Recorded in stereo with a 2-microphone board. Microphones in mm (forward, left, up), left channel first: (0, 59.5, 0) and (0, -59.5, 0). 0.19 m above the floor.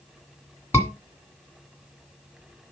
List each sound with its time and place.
0.7 s a scream: 20° left (ahead or behind), 1.7 m